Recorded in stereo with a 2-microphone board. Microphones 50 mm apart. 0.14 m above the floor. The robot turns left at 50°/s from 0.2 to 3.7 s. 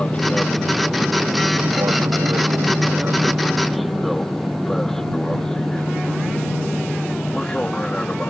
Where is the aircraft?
20° left (ahead or behind).